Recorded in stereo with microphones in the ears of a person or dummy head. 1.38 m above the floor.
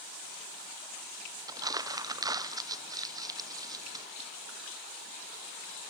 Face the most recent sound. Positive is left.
turn(degrees=-15)  # may be behind; listen again after turning